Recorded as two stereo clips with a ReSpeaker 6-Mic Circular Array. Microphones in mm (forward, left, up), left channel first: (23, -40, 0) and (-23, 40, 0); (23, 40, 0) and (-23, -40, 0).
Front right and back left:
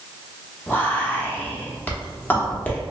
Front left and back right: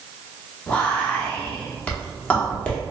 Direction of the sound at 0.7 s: 5° right.